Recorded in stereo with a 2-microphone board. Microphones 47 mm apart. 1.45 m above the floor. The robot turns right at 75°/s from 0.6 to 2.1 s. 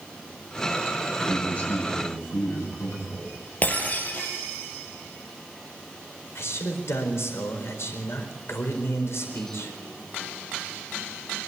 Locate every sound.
1.2 s a man speaking: straight ahead, 10 m; by 3.3 s 65° left, 10 m
3.6 s breaking glass: 35° left (ahead or behind), 4 m
6.3 s a man speaking: 65° left (ahead or behind), 4.5 m